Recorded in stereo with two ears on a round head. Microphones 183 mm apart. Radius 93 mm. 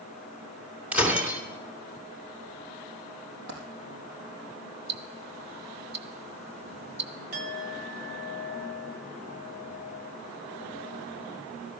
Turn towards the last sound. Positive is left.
turn(degrees=-50)  # may be behind; listen again after turning